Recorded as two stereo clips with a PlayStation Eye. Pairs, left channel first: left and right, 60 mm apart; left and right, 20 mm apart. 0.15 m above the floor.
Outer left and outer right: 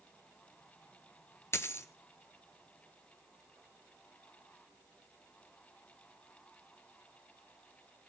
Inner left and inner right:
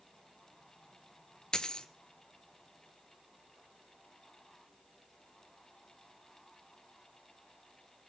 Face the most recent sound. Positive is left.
turn(degrees=45)  # may be behind; listen again after turning